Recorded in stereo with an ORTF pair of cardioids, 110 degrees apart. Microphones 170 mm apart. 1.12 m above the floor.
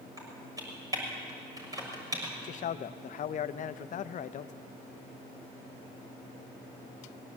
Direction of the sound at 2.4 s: 45° left.